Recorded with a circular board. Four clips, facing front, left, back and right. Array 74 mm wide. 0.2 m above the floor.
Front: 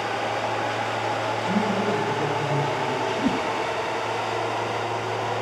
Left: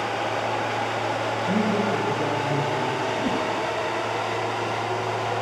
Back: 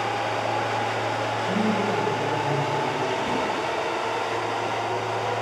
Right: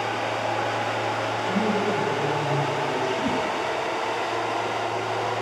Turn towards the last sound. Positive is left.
turn(degrees=5)